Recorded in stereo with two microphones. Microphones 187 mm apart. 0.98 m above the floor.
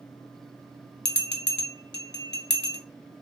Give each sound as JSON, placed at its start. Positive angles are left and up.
{"t": 1.1, "sound": "a bell", "side_deg": 65, "distance_m": 0.6}